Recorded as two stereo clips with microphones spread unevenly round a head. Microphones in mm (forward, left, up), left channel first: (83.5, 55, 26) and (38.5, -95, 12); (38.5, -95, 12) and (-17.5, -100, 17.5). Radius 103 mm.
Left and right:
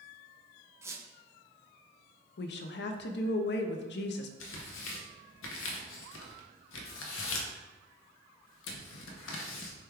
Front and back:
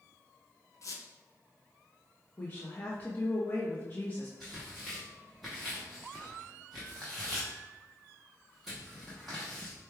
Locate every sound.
0.8 s a squeak: 30° right, 0.8 m
2.4 s a woman speaking: 70° left, 0.5 m
4.4 s tearing paper: 95° left, 0.6 m